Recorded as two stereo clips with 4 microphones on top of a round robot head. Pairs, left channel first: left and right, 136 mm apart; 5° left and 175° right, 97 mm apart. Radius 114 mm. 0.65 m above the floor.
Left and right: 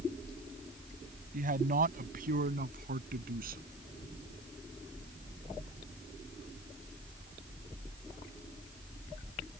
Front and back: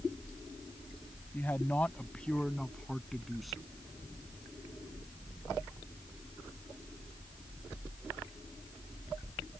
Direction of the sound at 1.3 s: 70° right.